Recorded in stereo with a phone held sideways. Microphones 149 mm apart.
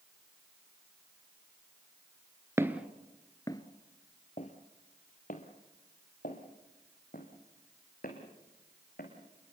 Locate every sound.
2.6 s footsteps: 20° right (ahead or behind), 1.2 m; by 9.1 s 80° left, 6 m